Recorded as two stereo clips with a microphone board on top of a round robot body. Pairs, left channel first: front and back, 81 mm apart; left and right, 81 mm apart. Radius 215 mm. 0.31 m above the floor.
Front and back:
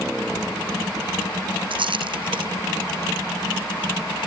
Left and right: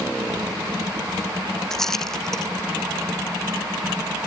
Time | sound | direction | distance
1.7 | a rattle | 175° left | ?